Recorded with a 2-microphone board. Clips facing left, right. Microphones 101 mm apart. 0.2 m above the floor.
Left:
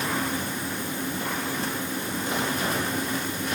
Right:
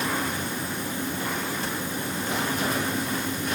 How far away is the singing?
No singing in this recording.